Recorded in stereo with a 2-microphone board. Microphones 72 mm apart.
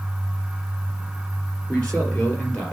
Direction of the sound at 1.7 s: 10° left (ahead or behind).